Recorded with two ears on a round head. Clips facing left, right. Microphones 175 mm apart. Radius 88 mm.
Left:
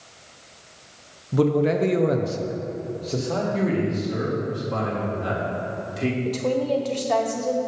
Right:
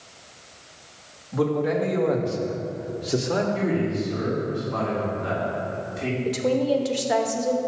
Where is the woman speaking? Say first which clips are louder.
Right 4 dB; 10° right (ahead or behind), 0.8 m.